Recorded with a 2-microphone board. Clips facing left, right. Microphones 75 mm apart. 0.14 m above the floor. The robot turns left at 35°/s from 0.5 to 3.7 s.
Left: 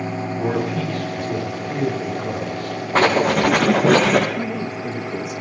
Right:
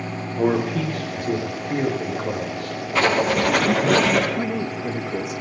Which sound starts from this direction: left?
Writing, at 3.0 s.